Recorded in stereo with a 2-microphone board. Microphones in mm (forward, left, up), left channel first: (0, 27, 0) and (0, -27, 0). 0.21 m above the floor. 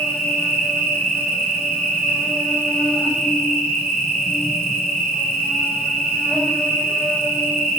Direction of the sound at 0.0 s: 5° left (ahead or behind).